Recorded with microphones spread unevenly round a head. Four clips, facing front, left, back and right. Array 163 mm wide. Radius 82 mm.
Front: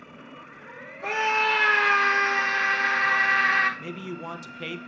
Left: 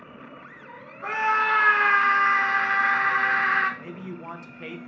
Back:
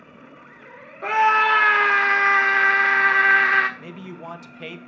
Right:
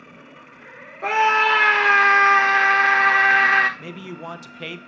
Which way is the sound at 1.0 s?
115° right.